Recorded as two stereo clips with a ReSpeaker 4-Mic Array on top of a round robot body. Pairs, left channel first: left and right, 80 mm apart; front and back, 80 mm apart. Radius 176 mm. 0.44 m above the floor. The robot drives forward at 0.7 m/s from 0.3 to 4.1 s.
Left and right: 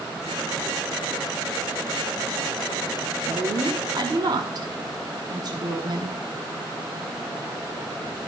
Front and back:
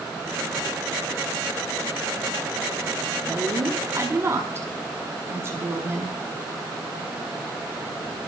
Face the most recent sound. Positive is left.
turn(degrees=-120)